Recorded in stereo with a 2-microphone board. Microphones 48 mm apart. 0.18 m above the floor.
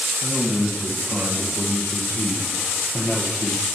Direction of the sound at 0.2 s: 55° left (ahead or behind).